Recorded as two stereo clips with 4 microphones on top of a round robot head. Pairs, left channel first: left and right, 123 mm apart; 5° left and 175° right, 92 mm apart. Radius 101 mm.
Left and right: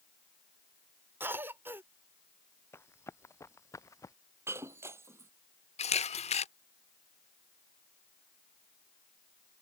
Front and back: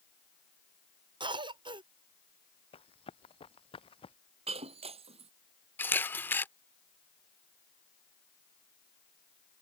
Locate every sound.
1.2 s a cough: 160° right
2.7 s running footsteps: 20° left; by 4.2 s 25° left
4.5 s breaking glass: 165° right
5.8 s a camera shutter: 70° left